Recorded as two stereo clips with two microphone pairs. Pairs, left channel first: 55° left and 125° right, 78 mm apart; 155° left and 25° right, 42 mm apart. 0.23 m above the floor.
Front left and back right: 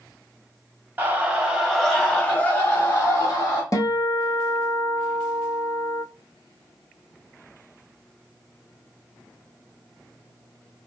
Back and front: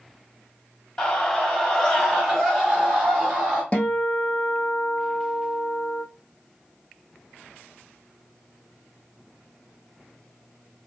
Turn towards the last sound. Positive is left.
turn(degrees=95)